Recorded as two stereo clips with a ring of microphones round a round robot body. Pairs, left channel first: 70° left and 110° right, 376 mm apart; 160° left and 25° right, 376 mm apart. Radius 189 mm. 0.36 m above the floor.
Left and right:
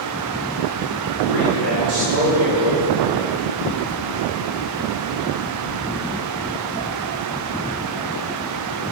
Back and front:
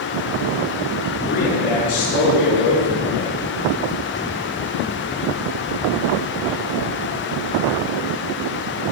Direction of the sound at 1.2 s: 140° right.